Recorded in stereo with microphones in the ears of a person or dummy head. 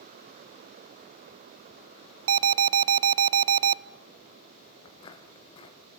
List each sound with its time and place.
2.3 s an alarm: 70° right (ahead or behind), 0.6 m
4.8 s footsteps: 25° left (ahead or behind), 1.9 m